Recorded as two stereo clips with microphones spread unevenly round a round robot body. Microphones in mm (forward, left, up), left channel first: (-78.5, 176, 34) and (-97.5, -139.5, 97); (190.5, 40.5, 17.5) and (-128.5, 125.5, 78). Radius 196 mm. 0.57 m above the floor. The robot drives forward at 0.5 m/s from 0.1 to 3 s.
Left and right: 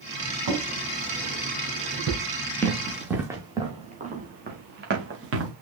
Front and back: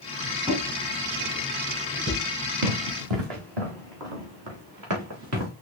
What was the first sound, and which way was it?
A drawer, 115° right.